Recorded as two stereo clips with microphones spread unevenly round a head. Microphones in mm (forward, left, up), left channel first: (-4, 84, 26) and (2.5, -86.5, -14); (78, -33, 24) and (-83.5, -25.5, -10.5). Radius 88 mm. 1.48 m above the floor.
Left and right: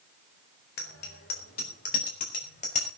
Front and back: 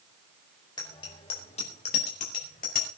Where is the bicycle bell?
65° left, 4.5 m; by 2.9 s 40° left, 6 m.